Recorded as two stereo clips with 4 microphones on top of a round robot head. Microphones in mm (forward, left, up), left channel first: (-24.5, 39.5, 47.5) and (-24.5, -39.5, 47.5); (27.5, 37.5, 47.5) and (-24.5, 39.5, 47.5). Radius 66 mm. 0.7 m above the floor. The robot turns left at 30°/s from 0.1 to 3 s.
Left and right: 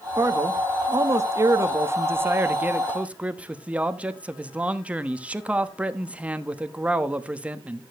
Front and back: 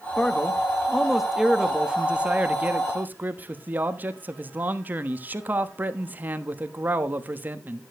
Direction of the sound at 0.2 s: 70° right.